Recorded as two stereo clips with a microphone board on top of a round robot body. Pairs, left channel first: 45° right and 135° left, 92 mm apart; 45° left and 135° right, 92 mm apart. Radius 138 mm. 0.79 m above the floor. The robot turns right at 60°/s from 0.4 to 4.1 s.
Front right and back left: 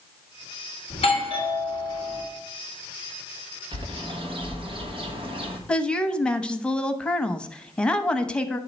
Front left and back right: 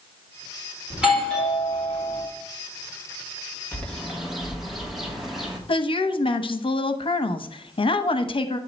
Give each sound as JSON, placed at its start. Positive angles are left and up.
{"t": 0.9, "sound": "a doorbell", "azimuth_deg": -65, "distance_m": 3.5}
{"t": 3.7, "sound": "a bird", "azimuth_deg": 115, "distance_m": 1.7}
{"t": 5.7, "sound": "a woman speaking", "azimuth_deg": 35, "distance_m": 0.9}